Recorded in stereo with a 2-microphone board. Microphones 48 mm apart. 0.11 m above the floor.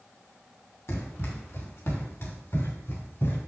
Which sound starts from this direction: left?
Running footsteps, at 0.9 s.